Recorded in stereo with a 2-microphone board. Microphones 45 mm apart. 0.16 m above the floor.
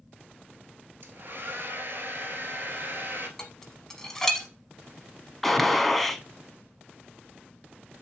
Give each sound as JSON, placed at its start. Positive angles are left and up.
{"t": 1.0, "sound": "a hair dryer", "side_deg": -50, "distance_m": 0.9}
{"t": 3.4, "sound": "dishes clattering", "side_deg": 10, "distance_m": 0.9}
{"t": 5.4, "sound": "a gunshot", "side_deg": 5, "distance_m": 0.5}